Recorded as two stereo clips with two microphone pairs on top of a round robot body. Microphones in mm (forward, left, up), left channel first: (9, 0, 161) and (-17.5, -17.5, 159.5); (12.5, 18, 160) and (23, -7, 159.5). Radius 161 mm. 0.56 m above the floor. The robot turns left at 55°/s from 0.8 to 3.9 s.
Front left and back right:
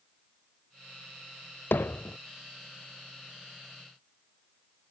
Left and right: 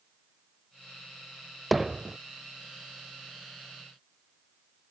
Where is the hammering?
25° left; by 2.2 s 5° right.